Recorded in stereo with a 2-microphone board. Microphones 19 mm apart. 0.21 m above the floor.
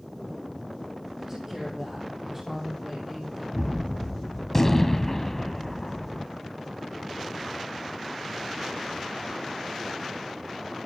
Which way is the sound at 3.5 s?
20° left (ahead or behind).